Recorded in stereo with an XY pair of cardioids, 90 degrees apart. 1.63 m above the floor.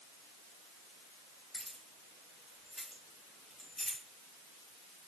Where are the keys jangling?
10° left, 2.5 m; by 4.0 s 20° left, 1.3 m.